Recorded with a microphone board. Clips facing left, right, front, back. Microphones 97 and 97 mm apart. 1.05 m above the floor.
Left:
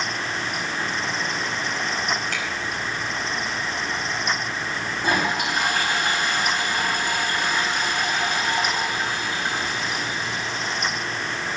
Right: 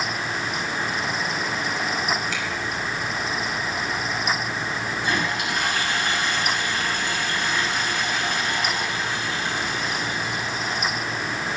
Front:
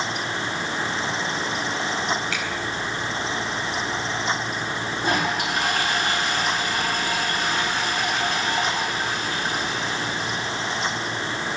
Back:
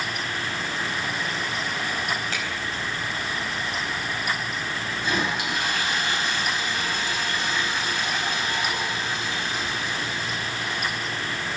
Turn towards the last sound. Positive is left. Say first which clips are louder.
# left 4 dB, front 3 dB
turn(degrees=45)